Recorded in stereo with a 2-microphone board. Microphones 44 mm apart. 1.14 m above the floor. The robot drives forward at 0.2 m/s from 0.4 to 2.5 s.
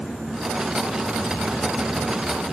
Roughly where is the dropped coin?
I don't hear a dropped coin.